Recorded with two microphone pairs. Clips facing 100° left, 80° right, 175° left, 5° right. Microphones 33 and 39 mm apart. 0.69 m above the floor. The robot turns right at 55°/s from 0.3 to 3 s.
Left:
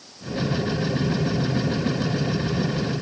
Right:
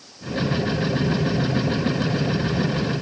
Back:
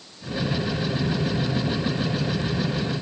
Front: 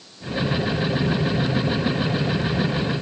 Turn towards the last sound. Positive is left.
No sound to turn to.